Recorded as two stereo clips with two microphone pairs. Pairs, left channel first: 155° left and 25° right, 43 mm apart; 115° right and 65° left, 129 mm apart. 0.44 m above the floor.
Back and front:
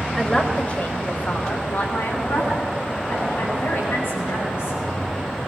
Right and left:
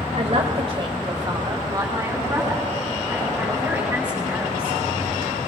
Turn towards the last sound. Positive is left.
turn(degrees=145)